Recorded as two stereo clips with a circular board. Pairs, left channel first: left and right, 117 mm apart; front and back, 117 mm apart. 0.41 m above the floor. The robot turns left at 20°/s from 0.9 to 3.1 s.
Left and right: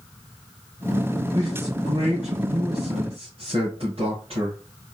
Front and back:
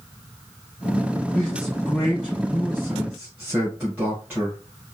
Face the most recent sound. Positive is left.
turn(degrees=-110)